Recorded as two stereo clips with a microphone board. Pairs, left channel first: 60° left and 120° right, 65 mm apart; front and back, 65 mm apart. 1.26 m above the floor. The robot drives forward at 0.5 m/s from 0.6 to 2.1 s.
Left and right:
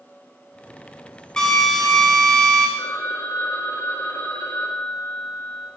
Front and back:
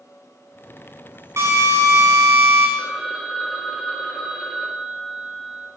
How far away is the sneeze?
No sneeze in this recording.